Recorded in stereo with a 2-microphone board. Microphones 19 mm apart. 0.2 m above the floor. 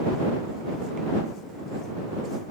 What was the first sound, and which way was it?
Only background noise.